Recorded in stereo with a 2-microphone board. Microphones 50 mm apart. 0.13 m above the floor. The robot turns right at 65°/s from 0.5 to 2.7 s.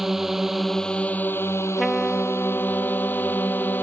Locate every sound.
0.0 s a drone: 5° right; by 3.8 s 135° left
1.8 s a trumpet: 5° left; by 3.8 s 65° left